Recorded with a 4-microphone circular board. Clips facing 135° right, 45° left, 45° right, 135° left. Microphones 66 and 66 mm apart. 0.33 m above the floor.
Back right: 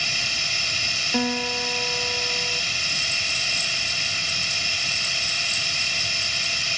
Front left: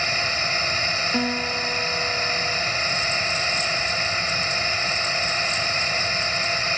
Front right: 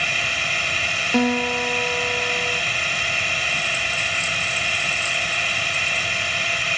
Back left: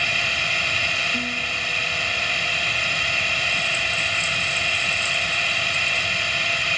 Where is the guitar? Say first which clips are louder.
Front left 1 dB, front right 7 dB; 55° right.